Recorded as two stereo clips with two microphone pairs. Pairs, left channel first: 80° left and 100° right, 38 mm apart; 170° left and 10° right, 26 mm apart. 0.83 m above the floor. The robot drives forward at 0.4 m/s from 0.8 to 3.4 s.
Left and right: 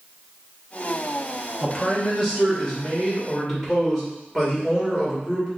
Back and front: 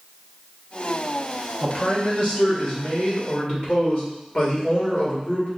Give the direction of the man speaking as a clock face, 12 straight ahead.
7 o'clock.